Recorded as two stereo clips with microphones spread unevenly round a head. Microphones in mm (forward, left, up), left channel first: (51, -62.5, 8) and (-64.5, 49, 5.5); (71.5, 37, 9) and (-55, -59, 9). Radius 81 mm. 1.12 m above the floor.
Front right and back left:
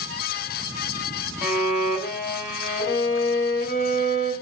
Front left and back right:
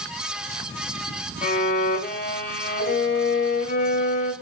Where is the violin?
Straight ahead, 3.5 m.